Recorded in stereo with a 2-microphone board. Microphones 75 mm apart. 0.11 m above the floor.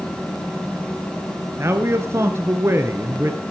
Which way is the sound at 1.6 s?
35° right (ahead or behind).